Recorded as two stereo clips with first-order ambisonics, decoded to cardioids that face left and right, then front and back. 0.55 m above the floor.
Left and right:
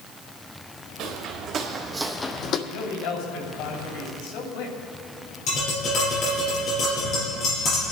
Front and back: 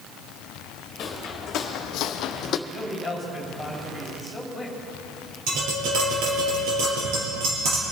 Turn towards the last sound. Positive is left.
turn(degrees=145)